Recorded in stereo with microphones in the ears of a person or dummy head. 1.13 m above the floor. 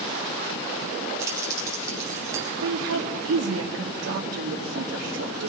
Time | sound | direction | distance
1.2 | keys jangling | 15° right (ahead or behind) | 7 m
2.6 | a woman speaking | 75° right (ahead or behind) | 3 m